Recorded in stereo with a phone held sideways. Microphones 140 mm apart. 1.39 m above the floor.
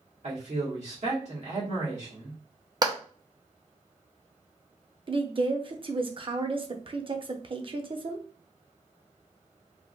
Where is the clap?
30° right (ahead or behind), 0.7 m.